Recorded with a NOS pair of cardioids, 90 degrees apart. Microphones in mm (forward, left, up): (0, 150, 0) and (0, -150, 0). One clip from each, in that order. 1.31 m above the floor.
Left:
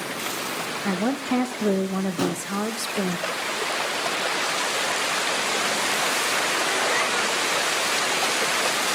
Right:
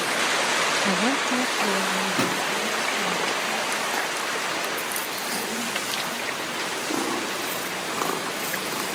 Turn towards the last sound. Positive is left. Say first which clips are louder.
# right 3 dB
turn(degrees=-25)